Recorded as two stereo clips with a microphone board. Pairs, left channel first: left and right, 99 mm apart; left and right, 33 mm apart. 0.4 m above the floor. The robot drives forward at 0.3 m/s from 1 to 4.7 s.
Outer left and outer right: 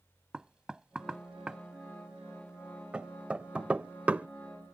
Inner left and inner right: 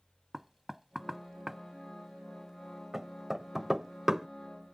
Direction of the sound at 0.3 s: 10° right (ahead or behind).